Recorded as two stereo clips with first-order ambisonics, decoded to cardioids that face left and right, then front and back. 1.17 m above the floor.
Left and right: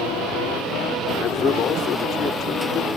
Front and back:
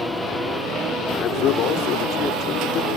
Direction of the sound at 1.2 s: 40° left.